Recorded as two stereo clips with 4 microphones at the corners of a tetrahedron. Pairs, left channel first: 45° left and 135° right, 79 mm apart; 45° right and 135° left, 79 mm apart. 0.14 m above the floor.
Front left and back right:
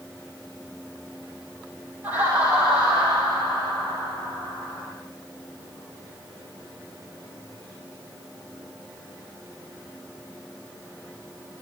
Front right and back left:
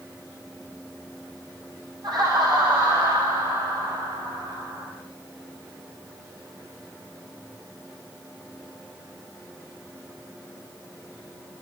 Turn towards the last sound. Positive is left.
turn(degrees=130)